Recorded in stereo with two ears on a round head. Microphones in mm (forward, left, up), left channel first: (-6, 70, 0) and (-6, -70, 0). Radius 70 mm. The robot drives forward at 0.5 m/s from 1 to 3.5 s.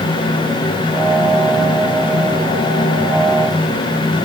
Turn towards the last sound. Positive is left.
No sound to turn to.